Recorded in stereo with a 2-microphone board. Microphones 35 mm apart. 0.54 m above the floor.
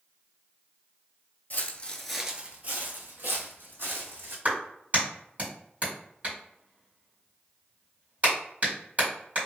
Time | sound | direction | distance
1.5 | footsteps | 45° left (ahead or behind) | 0.7 m
4.5 | a clap | 45° right (ahead or behind) | 1.8 m